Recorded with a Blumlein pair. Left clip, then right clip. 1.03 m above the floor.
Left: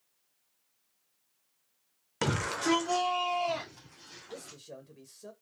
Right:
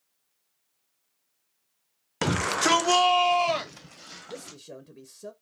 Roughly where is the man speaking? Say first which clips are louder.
Right 3 dB; ahead right.